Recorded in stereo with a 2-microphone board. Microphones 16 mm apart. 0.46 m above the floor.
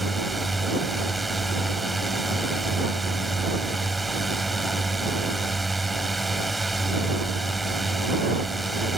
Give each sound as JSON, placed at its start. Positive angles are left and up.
{"t": 0.0, "sound": "a drone", "side_deg": 5}